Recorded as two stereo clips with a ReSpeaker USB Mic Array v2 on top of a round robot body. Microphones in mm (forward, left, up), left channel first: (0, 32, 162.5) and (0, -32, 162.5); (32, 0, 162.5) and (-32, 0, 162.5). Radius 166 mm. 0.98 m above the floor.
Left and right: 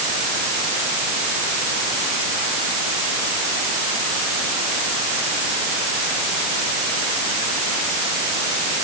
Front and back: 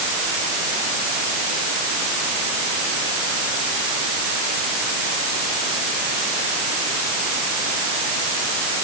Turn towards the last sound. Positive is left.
No sound to turn to.